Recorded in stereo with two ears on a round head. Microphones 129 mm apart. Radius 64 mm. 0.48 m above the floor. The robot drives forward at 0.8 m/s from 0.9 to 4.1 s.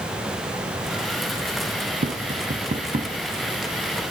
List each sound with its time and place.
2.0 s tapping: 50° right (ahead or behind), 1.2 m; by 3.1 s 35° right (ahead or behind), 1.6 m